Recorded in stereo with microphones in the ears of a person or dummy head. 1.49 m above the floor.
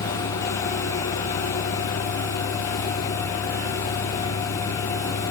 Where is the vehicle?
60° left (ahead or behind); by 5.3 s 45° left (ahead or behind).